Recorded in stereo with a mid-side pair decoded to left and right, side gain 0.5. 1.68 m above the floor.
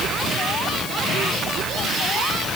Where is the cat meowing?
I don't hear a cat meowing.